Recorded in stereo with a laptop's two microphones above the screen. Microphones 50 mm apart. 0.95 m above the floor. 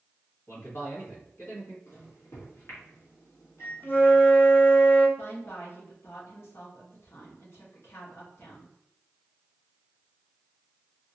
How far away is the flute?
About 0.9 m.